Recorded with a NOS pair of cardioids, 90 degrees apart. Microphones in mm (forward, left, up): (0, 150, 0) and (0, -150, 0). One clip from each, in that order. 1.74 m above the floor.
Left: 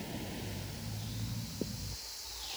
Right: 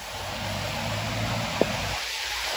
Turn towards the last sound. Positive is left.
No sound to turn to.